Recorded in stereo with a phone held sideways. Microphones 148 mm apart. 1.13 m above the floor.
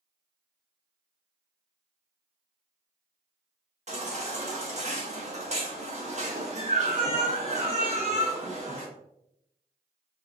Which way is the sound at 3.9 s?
50° right (ahead or behind).